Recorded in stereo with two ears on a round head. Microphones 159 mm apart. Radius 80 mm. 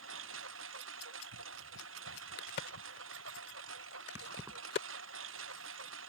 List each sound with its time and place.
0.0 s a lawn mower: 90° right
2.4 s a crack: 65° left (ahead or behind)
4.2 s keys jangling: 15° right (ahead or behind)